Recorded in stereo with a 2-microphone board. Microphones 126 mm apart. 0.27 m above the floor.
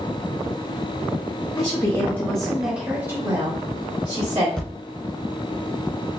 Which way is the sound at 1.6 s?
30° left (ahead or behind).